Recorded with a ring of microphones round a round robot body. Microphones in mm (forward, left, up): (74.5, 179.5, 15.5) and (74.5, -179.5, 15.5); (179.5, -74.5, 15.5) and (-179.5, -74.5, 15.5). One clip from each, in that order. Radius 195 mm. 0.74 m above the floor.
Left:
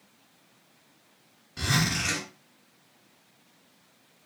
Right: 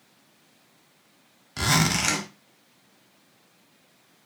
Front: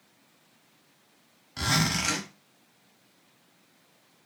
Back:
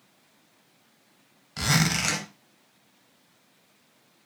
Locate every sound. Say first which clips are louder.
1.6 s a zipper: right 4 dB, back 2 dB; 105° right, 0.9 m